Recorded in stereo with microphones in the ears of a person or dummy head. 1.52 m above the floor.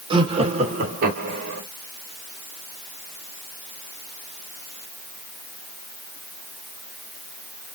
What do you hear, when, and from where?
0.1 s laughter: 20° right (ahead or behind), 1.3 m; by 1.6 s 45° right (ahead or behind), 1.9 m